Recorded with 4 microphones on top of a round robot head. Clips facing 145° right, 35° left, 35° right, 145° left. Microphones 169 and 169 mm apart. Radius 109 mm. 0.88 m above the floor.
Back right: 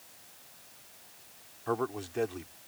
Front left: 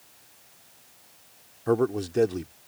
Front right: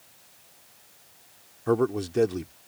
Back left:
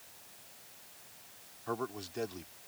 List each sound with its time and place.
1.7 s a man speaking: 10° right